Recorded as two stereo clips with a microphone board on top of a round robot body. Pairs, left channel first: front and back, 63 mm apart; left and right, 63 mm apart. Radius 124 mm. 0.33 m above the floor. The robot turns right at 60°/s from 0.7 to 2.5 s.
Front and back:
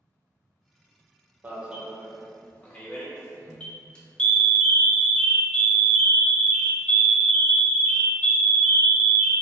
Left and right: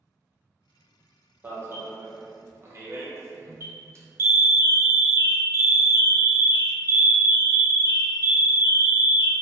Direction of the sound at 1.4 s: 130° right.